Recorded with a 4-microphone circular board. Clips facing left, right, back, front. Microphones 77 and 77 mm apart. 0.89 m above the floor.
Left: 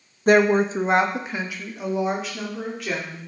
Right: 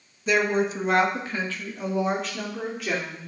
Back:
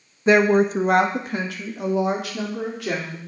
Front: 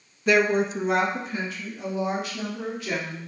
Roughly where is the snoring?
No snoring in this recording.